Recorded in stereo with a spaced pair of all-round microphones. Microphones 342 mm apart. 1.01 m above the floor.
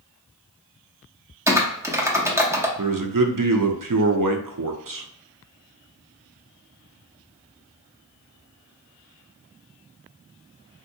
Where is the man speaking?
70° right (ahead or behind), 0.5 m.